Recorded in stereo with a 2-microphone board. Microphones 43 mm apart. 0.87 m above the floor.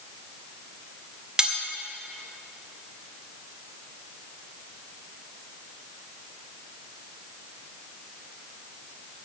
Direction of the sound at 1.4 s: 20° right (ahead or behind).